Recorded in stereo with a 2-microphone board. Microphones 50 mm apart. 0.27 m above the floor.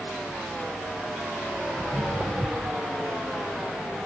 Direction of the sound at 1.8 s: 40° right (ahead or behind).